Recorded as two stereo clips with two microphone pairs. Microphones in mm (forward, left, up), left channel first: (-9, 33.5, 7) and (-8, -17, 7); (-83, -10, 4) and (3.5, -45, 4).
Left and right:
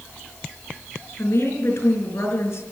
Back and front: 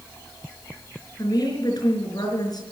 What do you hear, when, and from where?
1.2 s a woman speaking: 115° left, 4.5 m